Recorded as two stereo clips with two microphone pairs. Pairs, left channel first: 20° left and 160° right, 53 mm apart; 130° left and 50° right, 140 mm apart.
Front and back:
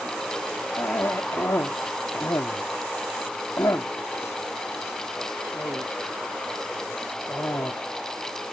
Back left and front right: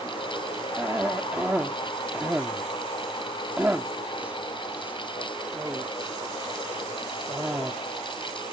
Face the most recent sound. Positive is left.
turn(degrees=30)